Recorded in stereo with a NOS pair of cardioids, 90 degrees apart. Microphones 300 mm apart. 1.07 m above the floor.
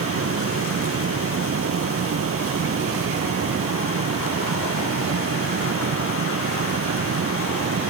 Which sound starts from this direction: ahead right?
A fan, at 0.0 s.